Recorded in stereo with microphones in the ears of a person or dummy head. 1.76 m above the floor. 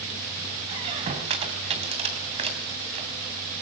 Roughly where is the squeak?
Right.